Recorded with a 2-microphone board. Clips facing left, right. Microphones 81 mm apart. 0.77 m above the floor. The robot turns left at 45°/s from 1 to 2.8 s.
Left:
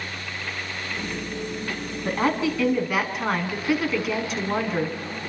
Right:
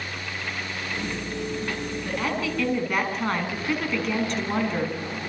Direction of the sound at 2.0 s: 35° left.